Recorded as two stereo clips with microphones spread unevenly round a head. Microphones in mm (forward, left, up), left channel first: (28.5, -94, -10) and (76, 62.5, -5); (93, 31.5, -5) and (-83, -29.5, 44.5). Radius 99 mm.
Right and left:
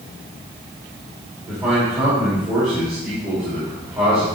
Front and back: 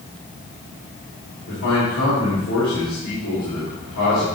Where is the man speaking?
Straight ahead, 4 m.